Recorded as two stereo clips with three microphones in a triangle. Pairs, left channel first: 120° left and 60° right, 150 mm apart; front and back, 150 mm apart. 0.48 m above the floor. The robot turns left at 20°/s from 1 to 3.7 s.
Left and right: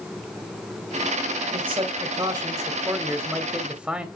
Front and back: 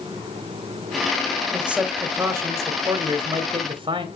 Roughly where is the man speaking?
Right.